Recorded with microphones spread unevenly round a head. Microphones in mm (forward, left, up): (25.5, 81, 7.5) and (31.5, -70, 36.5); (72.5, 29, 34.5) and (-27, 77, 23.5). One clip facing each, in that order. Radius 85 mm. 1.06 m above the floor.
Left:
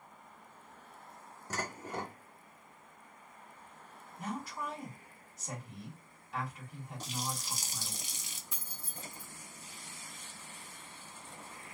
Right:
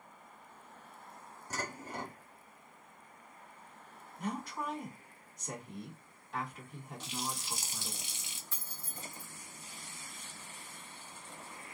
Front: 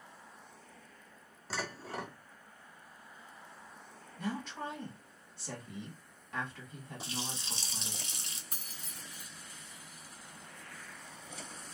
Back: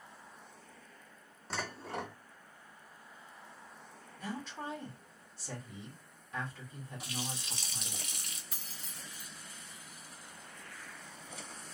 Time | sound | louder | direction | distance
1.5 | dishes clattering | left 2 dB, even | 60° left | 1.6 m
4.2 | a woman speaking | right 1 dB, front 3 dB | 10° left | 1.7 m
7.0 | a running tap | left 1 dB, front 1 dB | 40° left | 0.5 m
8.5 | keys jangling | even, even | 15° left | 0.8 m